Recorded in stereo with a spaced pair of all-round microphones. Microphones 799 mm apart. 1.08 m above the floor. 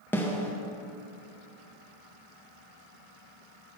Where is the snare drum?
5° left (ahead or behind), 0.6 m.